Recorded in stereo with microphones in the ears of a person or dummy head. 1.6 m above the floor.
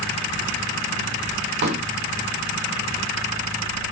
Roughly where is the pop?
Right.